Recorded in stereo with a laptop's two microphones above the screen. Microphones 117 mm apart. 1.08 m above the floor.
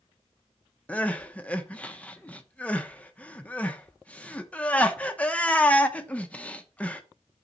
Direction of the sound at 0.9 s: 10° left (ahead or behind).